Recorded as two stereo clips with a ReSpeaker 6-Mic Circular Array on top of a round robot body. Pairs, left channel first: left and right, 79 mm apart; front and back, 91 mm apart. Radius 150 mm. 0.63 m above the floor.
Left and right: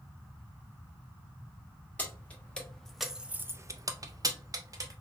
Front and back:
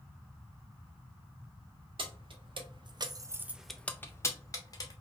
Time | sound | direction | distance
2.0 | keys jangling | 160° left | 1.1 m